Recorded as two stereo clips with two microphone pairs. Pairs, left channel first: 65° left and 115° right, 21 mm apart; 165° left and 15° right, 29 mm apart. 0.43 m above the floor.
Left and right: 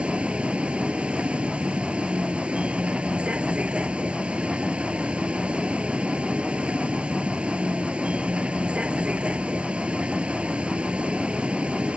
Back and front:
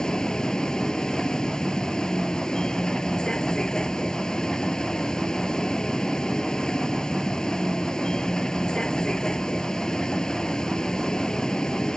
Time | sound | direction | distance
0.0 | a vehicle | 130° right | ?